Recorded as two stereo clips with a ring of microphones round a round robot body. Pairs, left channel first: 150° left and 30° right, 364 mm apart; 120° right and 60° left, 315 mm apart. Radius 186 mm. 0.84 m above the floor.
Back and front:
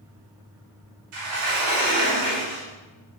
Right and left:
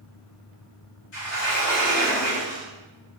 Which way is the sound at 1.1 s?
60° right.